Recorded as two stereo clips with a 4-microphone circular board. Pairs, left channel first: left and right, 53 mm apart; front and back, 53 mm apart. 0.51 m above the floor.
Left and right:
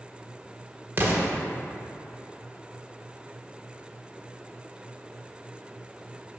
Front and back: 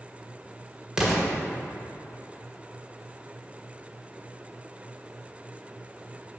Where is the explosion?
110° right, 1.5 m.